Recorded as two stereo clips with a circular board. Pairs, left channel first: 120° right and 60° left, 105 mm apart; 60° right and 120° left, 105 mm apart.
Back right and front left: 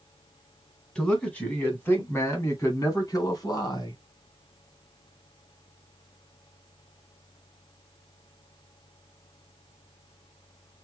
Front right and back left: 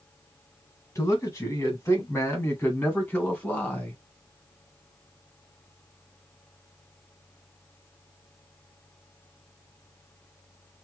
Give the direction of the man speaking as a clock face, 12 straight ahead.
2 o'clock.